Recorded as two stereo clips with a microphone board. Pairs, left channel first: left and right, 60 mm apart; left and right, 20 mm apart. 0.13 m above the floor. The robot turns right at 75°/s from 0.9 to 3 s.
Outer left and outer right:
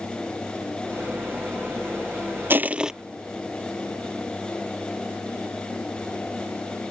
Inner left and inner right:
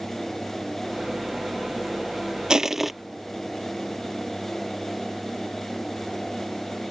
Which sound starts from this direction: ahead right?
Crushing, at 2.5 s.